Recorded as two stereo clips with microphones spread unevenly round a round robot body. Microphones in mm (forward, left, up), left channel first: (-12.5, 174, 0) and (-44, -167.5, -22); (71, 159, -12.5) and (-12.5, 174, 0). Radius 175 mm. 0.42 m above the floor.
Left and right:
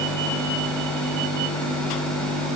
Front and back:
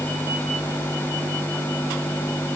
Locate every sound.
Only background noise.